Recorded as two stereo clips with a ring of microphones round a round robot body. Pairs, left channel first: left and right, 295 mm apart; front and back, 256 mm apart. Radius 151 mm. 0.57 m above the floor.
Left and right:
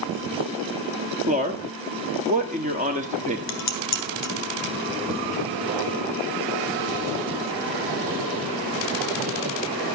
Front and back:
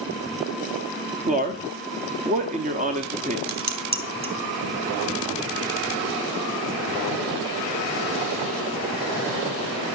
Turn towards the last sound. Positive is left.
turn(degrees=125)